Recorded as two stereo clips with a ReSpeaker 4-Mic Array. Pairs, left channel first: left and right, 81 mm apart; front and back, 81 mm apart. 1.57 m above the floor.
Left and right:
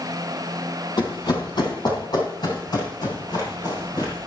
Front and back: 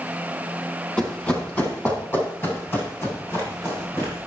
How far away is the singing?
No singing in this recording.